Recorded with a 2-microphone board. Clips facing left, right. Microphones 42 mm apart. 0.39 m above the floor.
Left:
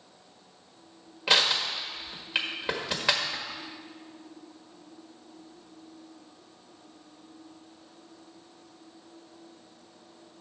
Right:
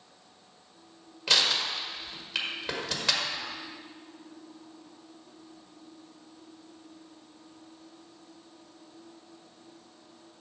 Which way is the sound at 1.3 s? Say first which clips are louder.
Left 2 dB; 20° left (ahead or behind).